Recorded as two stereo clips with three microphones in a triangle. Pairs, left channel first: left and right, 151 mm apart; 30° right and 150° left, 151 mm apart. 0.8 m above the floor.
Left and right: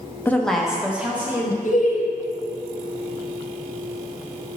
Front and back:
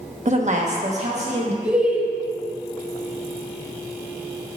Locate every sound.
0.2 s a woman speaking: 160° left, 0.8 m; by 1.5 s 165° right, 1.9 m
1.6 s laughter: 70° left, 1.0 m